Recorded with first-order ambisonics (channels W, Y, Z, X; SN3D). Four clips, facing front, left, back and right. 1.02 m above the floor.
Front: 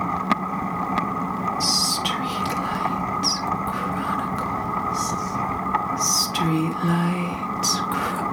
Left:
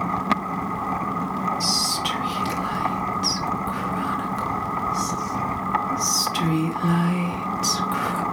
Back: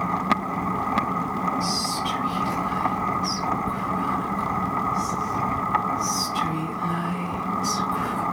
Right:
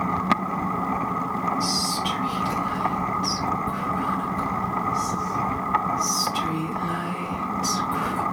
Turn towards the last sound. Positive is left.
turn(degrees=30)